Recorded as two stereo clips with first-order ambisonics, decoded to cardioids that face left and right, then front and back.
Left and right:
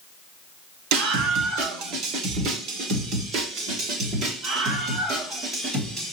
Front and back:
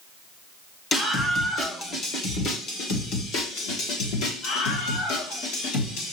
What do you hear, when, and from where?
0.9 s a scream: 65° right, 1.9 m; by 6.1 s 20° right, 3.5 m